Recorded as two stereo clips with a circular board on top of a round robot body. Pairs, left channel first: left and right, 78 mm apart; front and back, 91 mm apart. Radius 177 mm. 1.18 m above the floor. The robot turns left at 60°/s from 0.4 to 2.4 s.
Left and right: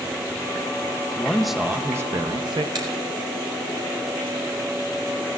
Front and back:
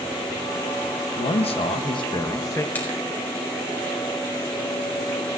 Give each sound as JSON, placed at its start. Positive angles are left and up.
{"t": 1.2, "sound": "a man speaking", "azimuth_deg": 15, "distance_m": 0.8}
{"t": 2.8, "sound": "a finger snap", "azimuth_deg": -70, "distance_m": 4.5}